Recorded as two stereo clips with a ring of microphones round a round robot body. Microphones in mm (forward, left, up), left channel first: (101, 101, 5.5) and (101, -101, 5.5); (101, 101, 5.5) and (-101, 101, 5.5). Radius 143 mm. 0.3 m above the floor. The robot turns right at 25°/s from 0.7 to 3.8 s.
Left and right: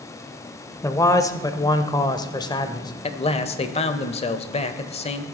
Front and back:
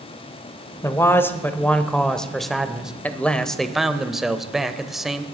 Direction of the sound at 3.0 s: 75° left.